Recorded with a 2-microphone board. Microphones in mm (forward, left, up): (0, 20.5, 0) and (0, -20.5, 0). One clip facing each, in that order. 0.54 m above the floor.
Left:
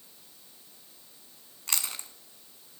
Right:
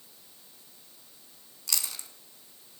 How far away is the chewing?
About 1.2 m.